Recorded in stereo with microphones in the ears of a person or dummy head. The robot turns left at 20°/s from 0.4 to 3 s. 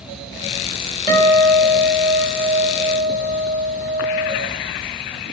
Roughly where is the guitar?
Ahead right.